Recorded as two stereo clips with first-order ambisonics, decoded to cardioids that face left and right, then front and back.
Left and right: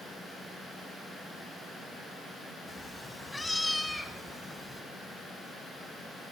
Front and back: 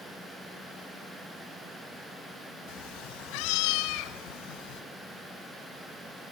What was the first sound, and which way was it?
A cat meowing, 10° left.